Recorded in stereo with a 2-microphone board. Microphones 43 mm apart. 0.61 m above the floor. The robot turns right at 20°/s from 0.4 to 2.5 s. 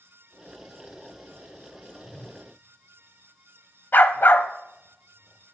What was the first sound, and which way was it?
A whoosh, 55° left (ahead or behind).